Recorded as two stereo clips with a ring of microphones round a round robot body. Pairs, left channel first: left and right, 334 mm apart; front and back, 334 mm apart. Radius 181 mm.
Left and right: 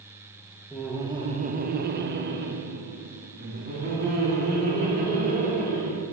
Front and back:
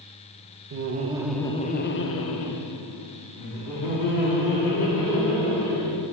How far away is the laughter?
About 0.6 m.